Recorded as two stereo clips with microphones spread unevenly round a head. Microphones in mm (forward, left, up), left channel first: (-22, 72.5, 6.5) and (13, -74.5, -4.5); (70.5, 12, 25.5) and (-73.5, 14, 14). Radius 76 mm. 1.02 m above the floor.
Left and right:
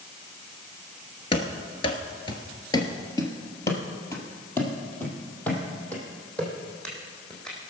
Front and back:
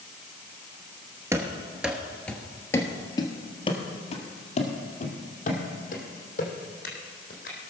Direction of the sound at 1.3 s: 110° left.